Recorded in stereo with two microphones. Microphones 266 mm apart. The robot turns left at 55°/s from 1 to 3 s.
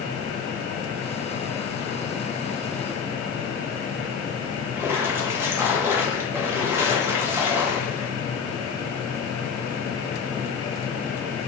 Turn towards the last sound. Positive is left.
turn(degrees=-10)  # may be behind; listen again after turning